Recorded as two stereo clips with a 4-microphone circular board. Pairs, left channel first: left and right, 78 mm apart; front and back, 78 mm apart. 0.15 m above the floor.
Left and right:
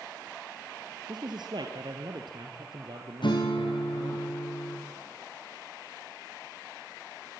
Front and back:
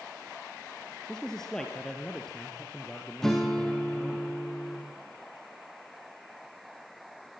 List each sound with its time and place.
1.1 s a man speaking: 80° right, 3 m
3.2 s a guitar: 85° left, 5.5 m